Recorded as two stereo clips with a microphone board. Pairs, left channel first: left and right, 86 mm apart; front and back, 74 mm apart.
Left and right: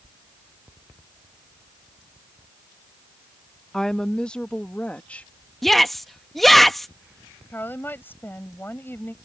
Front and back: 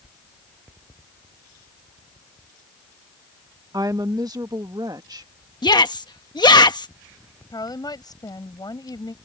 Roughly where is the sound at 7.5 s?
Ahead left.